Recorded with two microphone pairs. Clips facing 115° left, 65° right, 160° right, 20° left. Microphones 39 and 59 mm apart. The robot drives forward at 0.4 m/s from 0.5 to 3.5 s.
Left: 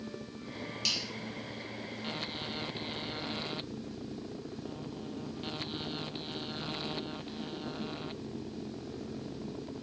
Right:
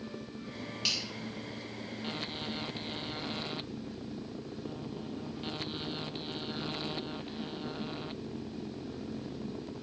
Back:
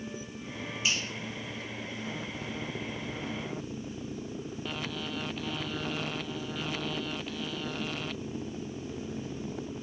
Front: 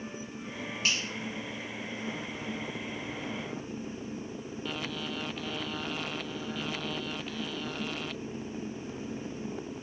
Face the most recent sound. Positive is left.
turn(degrees=20)